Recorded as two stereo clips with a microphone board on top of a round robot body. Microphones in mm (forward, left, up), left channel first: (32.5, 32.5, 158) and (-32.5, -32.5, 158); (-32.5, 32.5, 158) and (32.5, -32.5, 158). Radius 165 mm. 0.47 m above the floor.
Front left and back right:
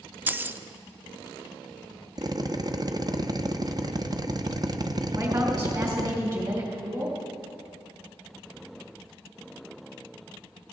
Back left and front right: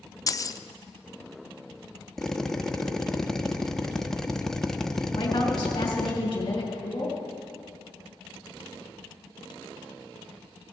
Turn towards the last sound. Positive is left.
turn(degrees=175)